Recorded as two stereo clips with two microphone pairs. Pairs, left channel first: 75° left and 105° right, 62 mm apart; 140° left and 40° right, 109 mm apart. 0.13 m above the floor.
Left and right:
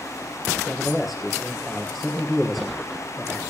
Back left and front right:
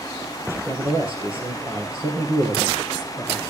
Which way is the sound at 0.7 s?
15° right.